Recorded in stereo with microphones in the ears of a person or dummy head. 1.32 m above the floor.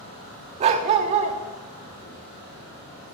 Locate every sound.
0.6 s a dog barking: 35° right (ahead or behind), 1.0 m